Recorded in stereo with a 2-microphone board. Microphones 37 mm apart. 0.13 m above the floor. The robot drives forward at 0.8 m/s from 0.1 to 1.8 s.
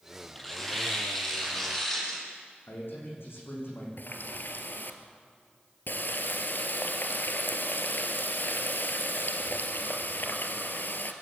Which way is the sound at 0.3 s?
10° left (ahead or behind).